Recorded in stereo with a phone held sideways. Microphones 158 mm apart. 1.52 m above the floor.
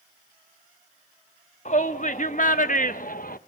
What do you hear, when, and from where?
1.6 s a shout: 50° left (ahead or behind), 3 m; by 3.4 s 65° left (ahead or behind), 1.4 m